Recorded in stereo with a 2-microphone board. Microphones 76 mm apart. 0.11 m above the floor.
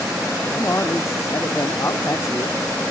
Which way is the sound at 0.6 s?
40° left (ahead or behind).